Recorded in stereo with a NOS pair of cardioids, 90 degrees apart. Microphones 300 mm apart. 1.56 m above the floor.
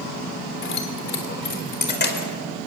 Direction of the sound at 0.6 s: 40° left.